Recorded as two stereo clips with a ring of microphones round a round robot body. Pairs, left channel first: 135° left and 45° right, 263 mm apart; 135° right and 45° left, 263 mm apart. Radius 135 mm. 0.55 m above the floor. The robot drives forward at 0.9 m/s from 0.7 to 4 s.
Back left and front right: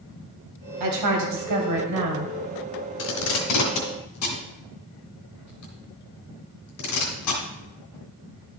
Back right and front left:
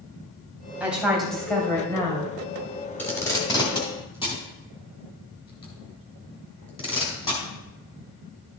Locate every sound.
0.8 s a woman speaking: 40° right, 3 m; by 2.3 s 65° right, 2.5 m
3.0 s tape being pulled: 140° left, 2.0 m; by 7.4 s 155° left, 2.5 m